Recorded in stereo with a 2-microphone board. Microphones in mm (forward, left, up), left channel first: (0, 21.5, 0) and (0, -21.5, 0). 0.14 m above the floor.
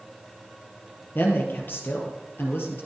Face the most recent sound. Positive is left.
turn(degrees=65)  # may be behind; listen again after turning